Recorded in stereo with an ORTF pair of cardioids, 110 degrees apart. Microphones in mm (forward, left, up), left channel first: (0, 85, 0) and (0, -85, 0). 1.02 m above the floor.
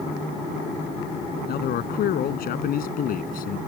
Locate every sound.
1.5 s a man speaking: 65° left; by 3.6 s 55° left